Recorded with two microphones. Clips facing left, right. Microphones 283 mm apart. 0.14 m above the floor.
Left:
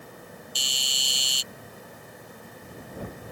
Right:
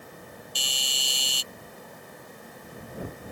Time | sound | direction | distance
0.6 | a doorbell | 65° right (ahead or behind) | ?